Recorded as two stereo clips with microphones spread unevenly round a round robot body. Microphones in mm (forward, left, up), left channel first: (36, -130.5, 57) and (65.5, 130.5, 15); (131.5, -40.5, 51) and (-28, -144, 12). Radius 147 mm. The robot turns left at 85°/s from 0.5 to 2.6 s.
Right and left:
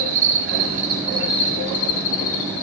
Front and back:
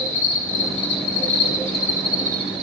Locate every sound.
0.0 s an insect: 45° left, 8 m; by 2.6 s 130° right, 8 m